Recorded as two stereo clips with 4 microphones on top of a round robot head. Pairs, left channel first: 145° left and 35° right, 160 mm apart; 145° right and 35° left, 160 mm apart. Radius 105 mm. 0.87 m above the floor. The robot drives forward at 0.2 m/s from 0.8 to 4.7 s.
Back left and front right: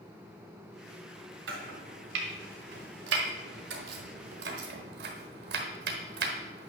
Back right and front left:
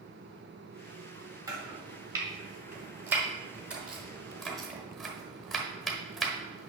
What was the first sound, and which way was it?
Chopping, 35° right.